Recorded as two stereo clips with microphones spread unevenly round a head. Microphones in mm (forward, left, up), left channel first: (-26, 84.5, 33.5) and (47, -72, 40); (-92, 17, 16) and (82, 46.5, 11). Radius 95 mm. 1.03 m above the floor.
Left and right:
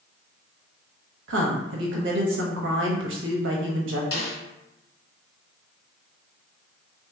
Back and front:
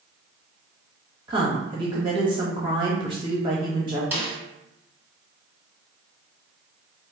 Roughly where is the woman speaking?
Ahead right.